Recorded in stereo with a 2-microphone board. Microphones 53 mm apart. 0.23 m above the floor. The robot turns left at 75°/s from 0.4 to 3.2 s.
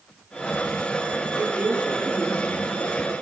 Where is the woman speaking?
50° right (ahead or behind), 6 m; by 3.1 s 75° left (ahead or behind), 6 m.